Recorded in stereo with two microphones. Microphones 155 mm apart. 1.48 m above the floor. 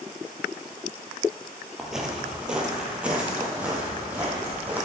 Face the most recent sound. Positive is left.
turn(degrees=-10)  # may be behind; listen again after turning